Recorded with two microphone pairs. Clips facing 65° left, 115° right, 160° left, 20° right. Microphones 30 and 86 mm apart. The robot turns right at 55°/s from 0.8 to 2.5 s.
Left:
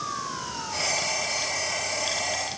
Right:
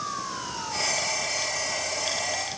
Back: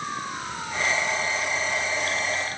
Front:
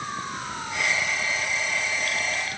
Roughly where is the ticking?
No ticking in this recording.